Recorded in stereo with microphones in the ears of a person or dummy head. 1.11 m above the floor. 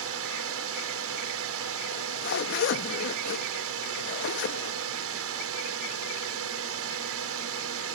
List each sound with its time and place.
0.0 s a drone: 70° right (ahead or behind)
1.9 s a zipper: 65° left (ahead or behind)